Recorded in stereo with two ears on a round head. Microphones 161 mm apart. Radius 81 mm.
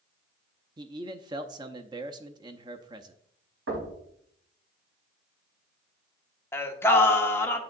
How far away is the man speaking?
About 0.6 m.